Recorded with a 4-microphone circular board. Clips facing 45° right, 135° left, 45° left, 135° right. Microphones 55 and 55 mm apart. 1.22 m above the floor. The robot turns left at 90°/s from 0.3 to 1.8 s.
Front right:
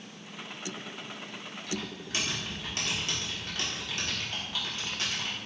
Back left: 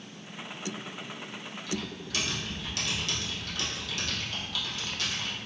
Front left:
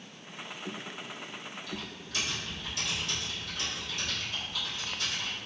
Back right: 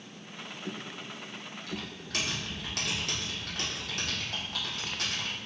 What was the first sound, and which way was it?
Typing on a keyboard, 100° right.